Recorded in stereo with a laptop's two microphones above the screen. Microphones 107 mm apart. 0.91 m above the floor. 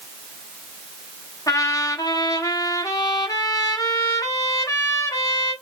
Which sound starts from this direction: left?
A trumpet, at 1.5 s.